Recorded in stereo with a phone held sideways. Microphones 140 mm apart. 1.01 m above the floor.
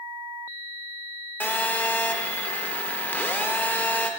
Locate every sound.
1.4 s a phone buzzing: 15° left (ahead or behind), 0.6 m